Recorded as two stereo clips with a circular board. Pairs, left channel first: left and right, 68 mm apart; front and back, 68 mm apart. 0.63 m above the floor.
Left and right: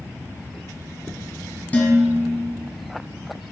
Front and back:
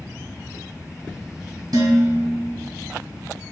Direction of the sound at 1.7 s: 160° left.